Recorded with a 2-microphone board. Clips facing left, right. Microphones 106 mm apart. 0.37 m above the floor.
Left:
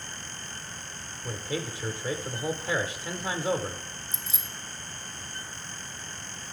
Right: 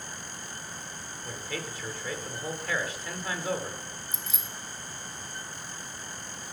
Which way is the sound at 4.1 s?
35° left (ahead or behind).